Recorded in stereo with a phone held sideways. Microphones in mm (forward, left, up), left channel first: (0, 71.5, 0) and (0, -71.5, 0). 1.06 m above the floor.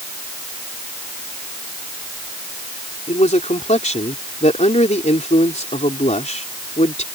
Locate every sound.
3.1 s a man speaking: 55° left (ahead or behind)